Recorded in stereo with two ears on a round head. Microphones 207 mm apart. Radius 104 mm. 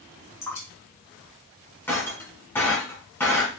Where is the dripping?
10° left (ahead or behind), 1.1 m.